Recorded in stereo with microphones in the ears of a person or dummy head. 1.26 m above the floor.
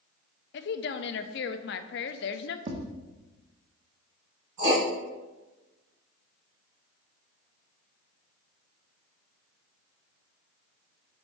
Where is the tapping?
30° right (ahead or behind), 0.7 m.